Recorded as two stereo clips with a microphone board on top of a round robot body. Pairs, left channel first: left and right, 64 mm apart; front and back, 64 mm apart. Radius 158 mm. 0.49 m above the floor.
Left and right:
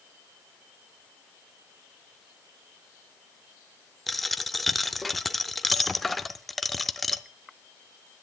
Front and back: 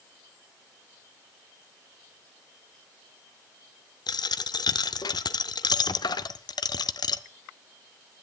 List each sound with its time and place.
4.1 s a dropped coin: straight ahead, 0.5 m